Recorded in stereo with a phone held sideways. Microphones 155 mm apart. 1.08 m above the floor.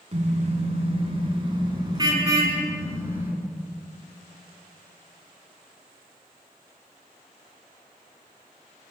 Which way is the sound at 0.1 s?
45° right (ahead or behind).